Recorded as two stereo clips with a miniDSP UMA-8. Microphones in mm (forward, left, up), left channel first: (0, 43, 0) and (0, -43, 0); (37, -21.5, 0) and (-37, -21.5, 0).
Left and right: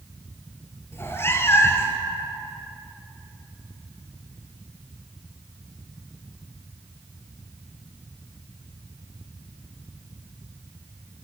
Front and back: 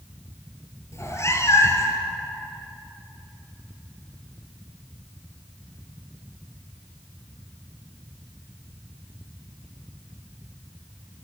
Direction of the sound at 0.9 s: 35° left.